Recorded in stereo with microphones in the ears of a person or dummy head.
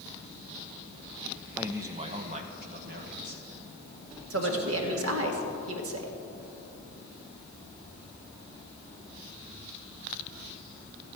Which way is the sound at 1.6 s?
5° right (ahead or behind).